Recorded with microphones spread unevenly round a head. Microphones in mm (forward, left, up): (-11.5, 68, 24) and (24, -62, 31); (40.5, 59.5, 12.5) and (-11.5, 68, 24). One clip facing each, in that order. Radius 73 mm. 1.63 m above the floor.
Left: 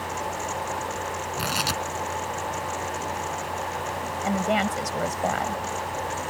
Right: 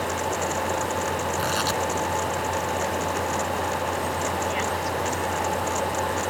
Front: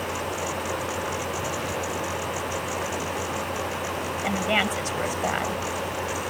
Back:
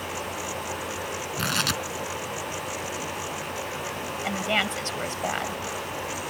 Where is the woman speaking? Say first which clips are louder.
Left 2 dB, front 2 dB; 70° left.